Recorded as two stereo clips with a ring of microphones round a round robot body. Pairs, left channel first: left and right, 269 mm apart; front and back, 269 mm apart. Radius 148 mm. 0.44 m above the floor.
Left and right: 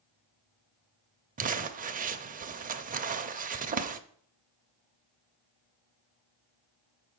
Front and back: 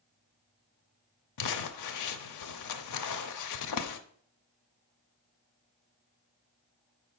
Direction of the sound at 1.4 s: 30° right.